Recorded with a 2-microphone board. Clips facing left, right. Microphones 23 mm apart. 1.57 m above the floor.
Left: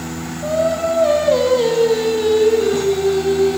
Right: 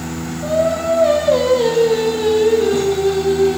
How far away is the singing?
About 9 m.